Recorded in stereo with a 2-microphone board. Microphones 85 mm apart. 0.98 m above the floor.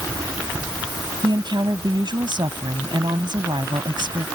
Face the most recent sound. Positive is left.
turn(degrees=-60)  # may be behind; listen again after turning